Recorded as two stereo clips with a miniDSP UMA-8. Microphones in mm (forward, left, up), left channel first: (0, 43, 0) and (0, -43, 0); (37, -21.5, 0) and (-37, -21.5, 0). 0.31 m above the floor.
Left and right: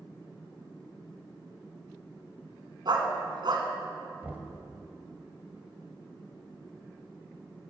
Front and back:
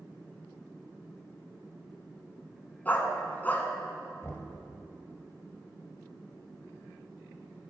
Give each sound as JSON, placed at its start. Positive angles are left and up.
{"t": 2.9, "sound": "a dog barking", "azimuth_deg": -65, "distance_m": 1.3}
{"t": 4.2, "sound": "knocking", "azimuth_deg": -30, "distance_m": 1.3}